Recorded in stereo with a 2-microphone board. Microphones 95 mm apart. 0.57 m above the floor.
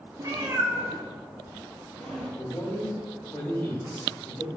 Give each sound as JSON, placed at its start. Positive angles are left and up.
{"t": 0.2, "sound": "a cat meowing", "side_deg": -40, "distance_m": 0.8}
{"t": 2.4, "sound": "a man speaking", "side_deg": 30, "distance_m": 1.0}